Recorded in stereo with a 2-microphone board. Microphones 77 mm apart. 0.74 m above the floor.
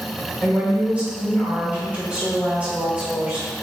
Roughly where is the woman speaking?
Centre.